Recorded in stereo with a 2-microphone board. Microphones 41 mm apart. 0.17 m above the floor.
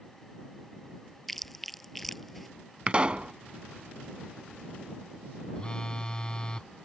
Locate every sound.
1.3 s chewing: 5° left (ahead or behind)
2.9 s a pop: 25° right (ahead or behind)
5.5 s a phone buzzing: 20° left (ahead or behind)